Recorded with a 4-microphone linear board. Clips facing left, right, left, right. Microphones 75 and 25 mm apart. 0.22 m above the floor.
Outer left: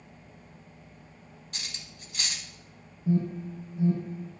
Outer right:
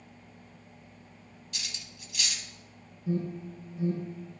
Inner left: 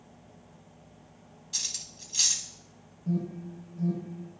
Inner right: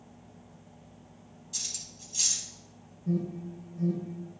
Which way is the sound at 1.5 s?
40° left (ahead or behind).